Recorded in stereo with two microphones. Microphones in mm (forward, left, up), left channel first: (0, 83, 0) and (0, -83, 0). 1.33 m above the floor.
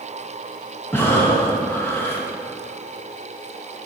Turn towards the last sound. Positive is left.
turn(degrees=15)  # may be behind; listen again after turning